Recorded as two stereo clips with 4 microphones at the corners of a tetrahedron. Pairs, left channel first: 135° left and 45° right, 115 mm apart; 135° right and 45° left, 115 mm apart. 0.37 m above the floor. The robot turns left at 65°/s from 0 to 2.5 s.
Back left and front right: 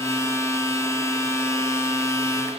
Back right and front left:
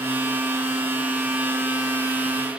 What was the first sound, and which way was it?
Only background noise.